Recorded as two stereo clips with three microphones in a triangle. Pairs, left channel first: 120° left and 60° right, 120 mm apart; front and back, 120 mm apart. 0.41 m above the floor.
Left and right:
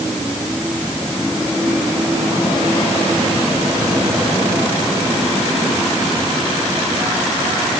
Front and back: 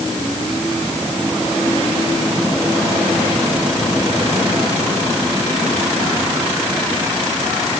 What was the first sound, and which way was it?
Only background noise.